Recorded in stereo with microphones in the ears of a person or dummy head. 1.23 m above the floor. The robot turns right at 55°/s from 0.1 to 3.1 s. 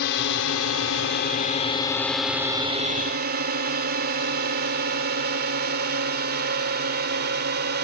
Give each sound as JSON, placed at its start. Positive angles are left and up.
{"t": 0.0, "sound": "a drone", "side_deg": 55}